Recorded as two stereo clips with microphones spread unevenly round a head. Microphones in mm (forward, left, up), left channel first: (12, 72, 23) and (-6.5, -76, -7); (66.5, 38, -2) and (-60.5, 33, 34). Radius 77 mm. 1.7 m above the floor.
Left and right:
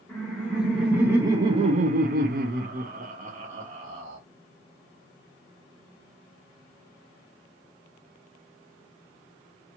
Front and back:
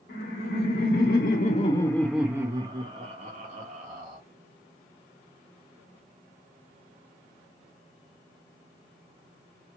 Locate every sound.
0.1 s laughter: 5° left, 1.1 m; by 4.2 s 150° right, 1.5 m